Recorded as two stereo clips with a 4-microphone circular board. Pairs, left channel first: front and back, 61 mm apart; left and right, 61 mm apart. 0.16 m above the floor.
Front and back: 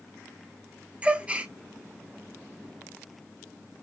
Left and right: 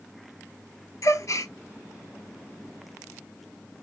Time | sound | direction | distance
1.0 | a gasp | 110° left | 0.6 m